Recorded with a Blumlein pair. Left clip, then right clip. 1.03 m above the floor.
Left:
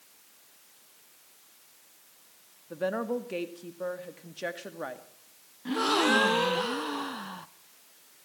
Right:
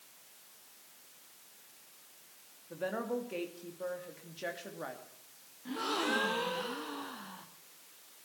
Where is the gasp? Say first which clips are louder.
Left 9 dB; 25° left, 1.0 m.